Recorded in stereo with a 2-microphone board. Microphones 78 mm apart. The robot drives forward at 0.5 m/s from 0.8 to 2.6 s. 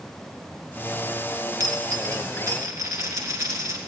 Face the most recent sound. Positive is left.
turn(degrees=-45)  # may be behind; listen again after turning